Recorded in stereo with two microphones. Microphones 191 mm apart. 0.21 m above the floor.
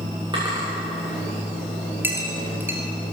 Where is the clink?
10° right (ahead or behind), 2.5 m.